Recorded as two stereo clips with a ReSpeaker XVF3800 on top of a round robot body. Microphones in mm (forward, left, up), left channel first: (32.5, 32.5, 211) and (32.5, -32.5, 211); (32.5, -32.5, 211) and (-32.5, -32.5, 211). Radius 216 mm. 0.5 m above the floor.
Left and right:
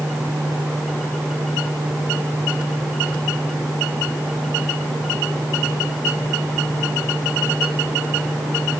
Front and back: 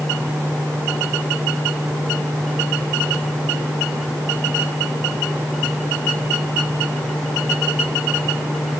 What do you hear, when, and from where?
Only background noise.